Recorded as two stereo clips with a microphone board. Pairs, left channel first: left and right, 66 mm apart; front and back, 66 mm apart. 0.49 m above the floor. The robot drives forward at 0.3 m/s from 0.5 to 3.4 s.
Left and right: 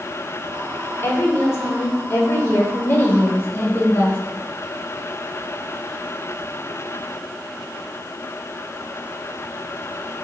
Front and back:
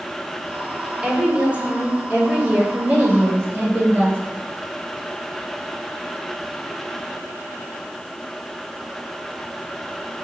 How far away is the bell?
No bell in this recording.